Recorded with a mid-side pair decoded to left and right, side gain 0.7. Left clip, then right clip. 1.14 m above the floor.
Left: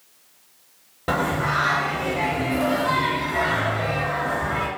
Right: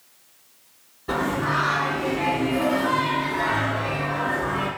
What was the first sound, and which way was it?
Singing, 65° left.